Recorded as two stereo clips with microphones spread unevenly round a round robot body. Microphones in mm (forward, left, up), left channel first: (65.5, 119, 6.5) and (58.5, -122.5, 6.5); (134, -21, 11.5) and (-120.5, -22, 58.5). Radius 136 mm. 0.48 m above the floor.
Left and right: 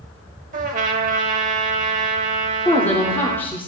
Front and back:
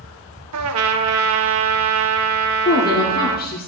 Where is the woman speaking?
10° left, 1.2 m.